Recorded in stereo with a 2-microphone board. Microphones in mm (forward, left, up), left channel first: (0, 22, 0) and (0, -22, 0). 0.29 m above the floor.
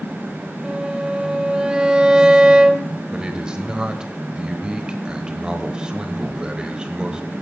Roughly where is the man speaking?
Right.